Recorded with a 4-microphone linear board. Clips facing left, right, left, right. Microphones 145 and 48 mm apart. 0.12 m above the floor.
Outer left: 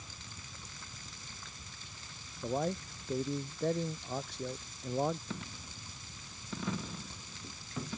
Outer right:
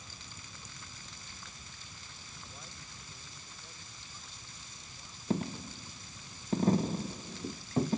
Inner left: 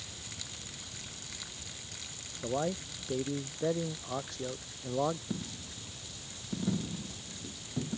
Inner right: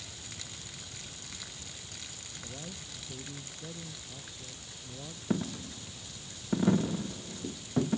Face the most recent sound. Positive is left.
turn(degrees=-40)  # may be behind; listen again after turning